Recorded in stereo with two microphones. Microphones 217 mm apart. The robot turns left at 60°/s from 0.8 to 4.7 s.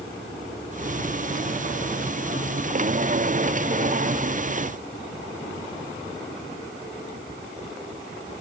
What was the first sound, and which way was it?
Only background noise.